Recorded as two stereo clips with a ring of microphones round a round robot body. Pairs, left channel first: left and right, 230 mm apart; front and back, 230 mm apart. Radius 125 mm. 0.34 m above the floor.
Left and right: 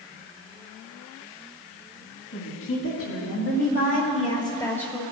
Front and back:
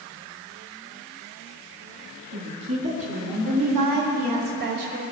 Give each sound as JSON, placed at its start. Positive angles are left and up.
{"t": 2.3, "sound": "a woman speaking", "azimuth_deg": 110, "distance_m": 3.5}